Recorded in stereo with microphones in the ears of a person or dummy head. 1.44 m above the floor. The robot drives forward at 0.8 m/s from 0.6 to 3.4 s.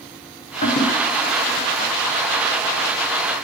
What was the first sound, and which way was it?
A toilet flushing, 35° left (ahead or behind).